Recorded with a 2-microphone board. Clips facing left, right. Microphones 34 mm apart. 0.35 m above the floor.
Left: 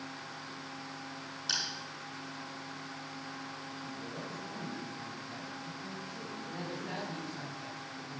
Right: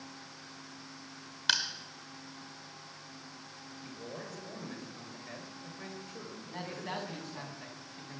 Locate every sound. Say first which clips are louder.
1.5 s crushing: right 6 dB; 60° right (ahead or behind), 1.7 m
3.8 s a man speaking: right 1 dB; 65° right (ahead or behind), 5.5 m
6.5 s a man speaking: right 1 dB; 45° right (ahead or behind), 3 m